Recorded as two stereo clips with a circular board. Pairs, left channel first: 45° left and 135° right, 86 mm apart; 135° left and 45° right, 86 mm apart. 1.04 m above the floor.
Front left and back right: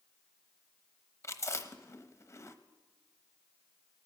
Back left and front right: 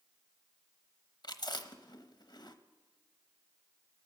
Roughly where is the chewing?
Left.